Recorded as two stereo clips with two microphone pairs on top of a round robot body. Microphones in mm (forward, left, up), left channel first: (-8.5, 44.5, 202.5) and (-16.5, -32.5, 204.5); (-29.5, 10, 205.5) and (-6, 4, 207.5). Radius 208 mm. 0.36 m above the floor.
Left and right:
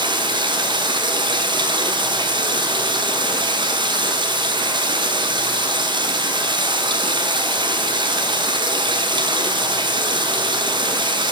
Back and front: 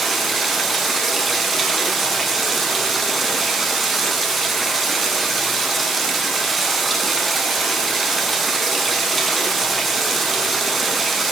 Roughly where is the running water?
Right.